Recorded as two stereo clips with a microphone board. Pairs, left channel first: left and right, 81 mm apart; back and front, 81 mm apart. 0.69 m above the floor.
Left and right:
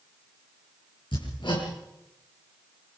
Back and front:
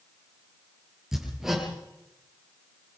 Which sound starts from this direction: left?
Hammering, at 1.1 s.